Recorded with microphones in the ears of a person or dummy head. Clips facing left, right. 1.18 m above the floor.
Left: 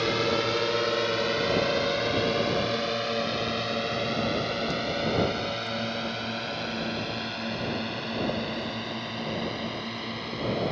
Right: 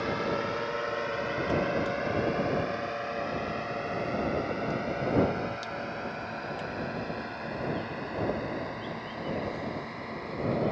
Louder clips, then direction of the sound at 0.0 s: Left 4 dB; 45° left (ahead or behind).